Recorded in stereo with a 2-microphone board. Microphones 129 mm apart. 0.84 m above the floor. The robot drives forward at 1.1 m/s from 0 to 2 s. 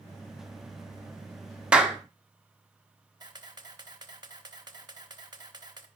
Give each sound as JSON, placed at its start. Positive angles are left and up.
{"t": 1.7, "sound": "a clap", "side_deg": -5, "distance_m": 1.0}
{"t": 3.2, "sound": "a camera shutter", "side_deg": -35, "distance_m": 1.0}